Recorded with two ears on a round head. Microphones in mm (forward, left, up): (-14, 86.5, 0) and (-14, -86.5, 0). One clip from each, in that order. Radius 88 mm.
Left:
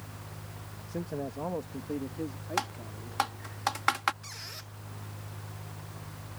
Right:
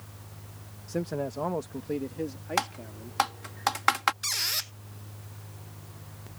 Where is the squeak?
65° right (ahead or behind).